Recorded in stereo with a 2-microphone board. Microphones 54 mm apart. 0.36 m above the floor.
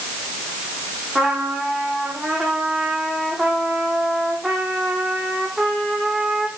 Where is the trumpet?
5° right (ahead or behind), 7 m.